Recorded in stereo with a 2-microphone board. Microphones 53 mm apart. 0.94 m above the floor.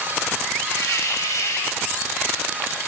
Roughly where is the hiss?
Left.